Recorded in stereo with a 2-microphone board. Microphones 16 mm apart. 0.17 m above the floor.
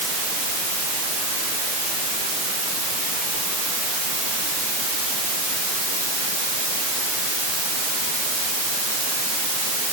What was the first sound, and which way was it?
Only background noise.